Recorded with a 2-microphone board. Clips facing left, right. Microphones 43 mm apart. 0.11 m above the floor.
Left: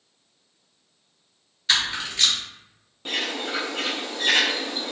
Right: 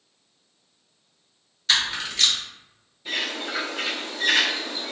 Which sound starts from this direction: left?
A bird, at 3.0 s.